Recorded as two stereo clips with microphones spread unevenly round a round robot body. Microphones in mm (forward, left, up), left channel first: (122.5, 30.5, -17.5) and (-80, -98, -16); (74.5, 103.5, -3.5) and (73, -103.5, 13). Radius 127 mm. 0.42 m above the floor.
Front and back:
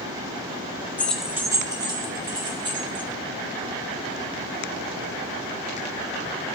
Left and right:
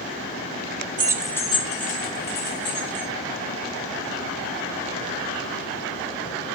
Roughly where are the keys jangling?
Ahead right.